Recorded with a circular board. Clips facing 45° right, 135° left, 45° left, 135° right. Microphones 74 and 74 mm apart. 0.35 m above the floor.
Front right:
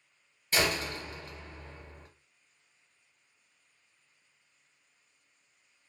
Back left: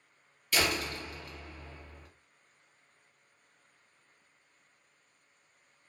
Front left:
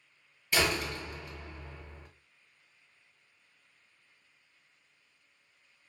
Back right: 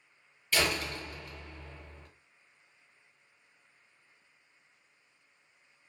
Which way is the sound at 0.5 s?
15° right.